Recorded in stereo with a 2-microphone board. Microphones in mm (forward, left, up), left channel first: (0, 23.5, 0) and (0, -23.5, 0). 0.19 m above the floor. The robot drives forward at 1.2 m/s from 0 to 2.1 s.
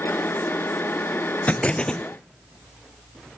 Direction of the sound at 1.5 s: 35° left (ahead or behind).